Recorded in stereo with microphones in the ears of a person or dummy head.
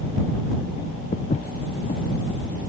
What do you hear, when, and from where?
1.1 s footsteps: 45° left (ahead or behind)